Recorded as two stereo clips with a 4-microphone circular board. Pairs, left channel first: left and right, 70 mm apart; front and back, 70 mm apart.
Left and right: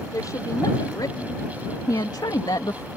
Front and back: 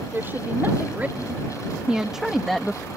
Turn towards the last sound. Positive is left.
turn(degrees=80)